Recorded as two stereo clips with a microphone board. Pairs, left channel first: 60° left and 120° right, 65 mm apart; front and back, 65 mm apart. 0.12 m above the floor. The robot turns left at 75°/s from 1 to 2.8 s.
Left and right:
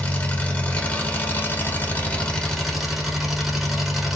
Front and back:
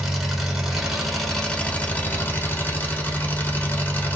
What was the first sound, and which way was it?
An engine running, 100° left.